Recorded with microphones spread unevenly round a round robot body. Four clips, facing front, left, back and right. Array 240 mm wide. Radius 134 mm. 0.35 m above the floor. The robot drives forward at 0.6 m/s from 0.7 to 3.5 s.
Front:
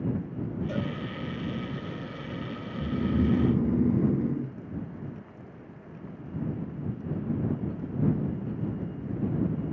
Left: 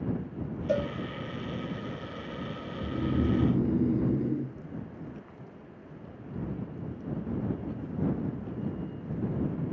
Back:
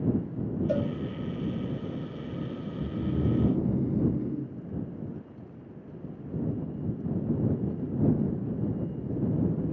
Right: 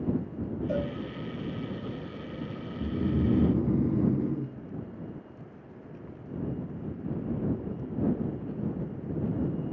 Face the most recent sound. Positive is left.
turn(degrees=-15)